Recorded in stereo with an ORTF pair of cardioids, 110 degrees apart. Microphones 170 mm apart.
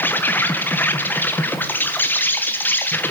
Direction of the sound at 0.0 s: 10° left.